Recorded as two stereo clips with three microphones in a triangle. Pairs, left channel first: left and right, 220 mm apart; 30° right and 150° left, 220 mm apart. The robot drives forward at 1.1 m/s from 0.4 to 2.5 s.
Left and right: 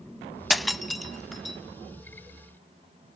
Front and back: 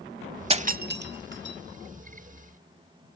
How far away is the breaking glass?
About 0.6 m.